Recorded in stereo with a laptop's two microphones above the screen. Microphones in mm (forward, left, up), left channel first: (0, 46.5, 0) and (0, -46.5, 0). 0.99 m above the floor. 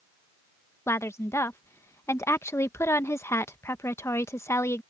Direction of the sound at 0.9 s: 30° left (ahead or behind).